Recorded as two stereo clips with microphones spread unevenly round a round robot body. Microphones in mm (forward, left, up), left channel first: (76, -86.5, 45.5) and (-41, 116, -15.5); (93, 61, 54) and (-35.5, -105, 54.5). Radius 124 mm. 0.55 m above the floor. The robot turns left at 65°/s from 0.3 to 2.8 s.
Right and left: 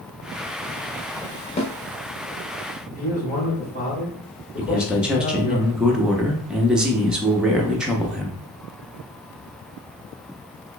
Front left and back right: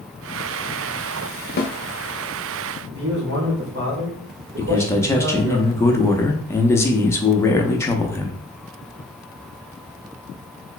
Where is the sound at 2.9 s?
125° right, 1.8 m.